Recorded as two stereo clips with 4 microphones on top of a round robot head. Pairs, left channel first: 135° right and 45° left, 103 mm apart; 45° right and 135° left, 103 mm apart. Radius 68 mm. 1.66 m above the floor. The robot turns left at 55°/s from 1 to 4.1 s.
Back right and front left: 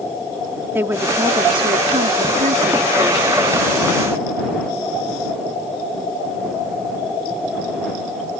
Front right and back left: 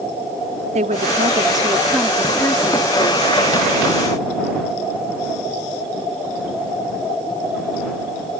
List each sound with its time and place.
0.8 s a woman speaking: 115° left; by 3.3 s 15° right